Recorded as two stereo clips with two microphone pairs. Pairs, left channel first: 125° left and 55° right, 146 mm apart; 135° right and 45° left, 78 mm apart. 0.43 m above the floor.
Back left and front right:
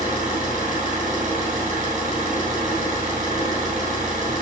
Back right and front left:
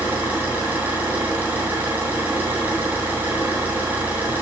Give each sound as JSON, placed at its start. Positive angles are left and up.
{"t": 0.0, "sound": "an engine running", "azimuth_deg": -25, "distance_m": 4.5}